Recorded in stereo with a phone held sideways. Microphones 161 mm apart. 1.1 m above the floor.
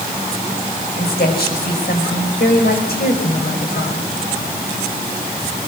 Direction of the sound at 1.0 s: 80° left.